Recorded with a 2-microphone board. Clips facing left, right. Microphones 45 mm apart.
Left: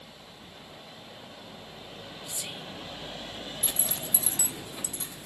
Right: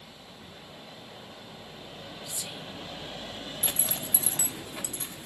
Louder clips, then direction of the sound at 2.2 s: Left 2 dB; 40° left (ahead or behind).